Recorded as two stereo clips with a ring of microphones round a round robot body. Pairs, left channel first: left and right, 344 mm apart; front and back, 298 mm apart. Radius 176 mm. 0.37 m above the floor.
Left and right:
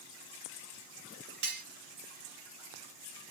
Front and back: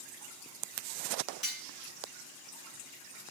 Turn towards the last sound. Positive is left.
turn(degrees=-70)